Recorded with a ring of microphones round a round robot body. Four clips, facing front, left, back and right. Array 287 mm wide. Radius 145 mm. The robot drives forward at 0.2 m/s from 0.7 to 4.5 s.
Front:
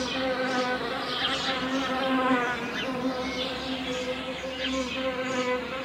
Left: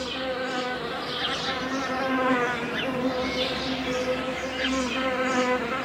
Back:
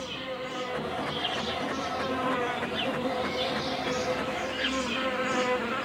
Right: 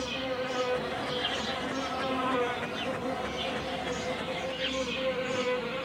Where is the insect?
40° left, 0.7 m; by 5.9 s 115° left, 0.5 m.